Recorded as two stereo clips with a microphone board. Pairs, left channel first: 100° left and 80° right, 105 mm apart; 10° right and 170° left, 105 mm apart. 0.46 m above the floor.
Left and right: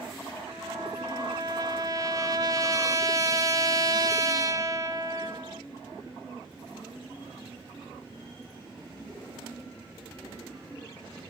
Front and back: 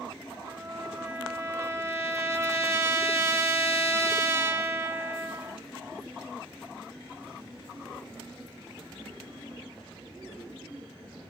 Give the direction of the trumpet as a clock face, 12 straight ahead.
4 o'clock.